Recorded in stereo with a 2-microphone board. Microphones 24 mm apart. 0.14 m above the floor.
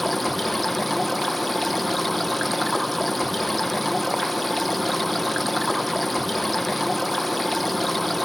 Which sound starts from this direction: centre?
Running water, at 0.0 s.